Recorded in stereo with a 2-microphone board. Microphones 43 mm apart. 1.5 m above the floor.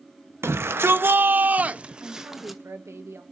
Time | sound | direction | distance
0.4 | a shout | 75° right (ahead or behind) | 1.3 m
2.0 | a woman speaking | 80° right | 1.4 m